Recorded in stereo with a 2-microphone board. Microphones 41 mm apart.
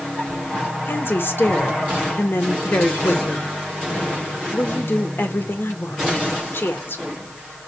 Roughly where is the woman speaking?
Left.